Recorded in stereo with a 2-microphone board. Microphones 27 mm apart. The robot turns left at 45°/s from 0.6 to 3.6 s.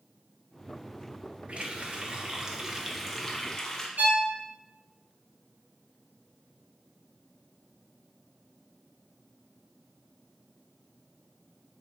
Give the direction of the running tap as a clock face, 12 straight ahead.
4 o'clock.